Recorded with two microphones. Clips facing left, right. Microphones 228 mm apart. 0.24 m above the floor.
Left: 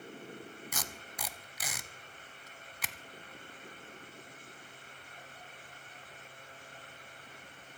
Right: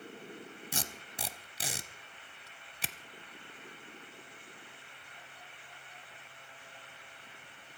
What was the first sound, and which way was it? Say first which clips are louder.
Tape being pulled: right 2 dB; 30° right (ahead or behind).